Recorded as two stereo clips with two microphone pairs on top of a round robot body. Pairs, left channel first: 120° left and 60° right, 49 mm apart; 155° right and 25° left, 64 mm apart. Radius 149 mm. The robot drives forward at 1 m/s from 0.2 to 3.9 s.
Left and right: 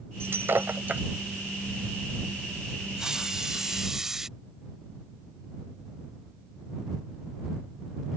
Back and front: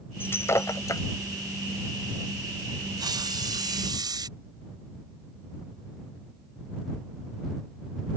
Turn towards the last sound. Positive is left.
turn(degrees=25)